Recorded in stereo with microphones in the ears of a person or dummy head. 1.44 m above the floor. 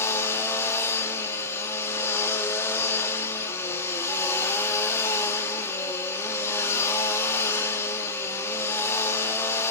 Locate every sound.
0.0 s a machine running: 10° left (ahead or behind), 1.5 m